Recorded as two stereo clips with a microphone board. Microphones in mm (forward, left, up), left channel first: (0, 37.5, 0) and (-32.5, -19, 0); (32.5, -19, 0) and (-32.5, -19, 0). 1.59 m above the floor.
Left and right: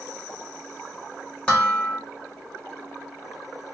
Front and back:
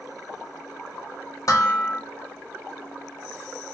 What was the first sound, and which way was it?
Dishes clattering, 10° right.